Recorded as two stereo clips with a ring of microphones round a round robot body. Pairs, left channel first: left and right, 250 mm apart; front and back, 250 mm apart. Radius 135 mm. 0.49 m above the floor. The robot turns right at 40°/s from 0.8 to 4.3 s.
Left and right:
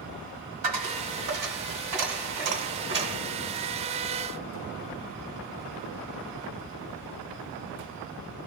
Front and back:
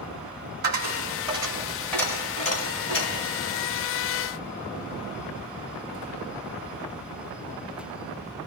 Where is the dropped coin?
130° right, 1.9 m; by 3.2 s 30° right, 1.9 m.